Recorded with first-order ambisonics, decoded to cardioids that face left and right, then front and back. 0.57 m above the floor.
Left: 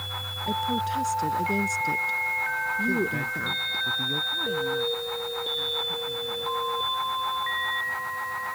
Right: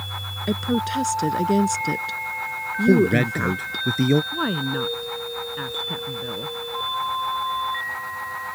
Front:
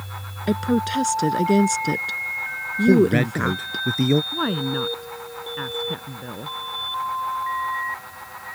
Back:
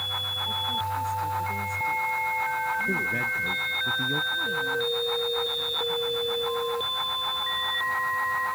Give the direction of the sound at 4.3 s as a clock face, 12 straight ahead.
1 o'clock.